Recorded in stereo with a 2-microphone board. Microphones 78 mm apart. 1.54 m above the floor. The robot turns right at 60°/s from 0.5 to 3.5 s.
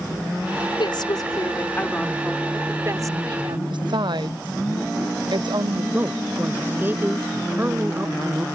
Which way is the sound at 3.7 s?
80° right.